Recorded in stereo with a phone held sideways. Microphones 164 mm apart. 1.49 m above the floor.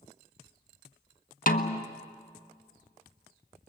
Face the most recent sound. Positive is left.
turn(degrees=55)  # may be behind; listen again after turning